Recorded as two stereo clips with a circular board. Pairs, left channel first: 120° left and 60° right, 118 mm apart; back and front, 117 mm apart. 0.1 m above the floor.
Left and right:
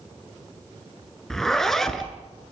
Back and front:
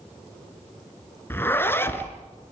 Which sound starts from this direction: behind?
A zipper, at 1.3 s.